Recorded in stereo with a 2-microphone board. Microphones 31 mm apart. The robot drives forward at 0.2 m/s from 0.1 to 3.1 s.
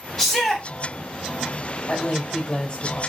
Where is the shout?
5° left (ahead or behind), 1.3 m; by 0.7 s 10° left (ahead or behind), 1.2 m.